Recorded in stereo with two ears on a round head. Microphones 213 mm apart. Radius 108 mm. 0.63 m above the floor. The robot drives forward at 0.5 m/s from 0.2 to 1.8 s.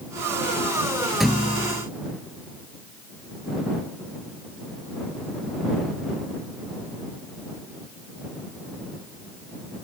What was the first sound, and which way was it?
A thud, centre (ahead or behind).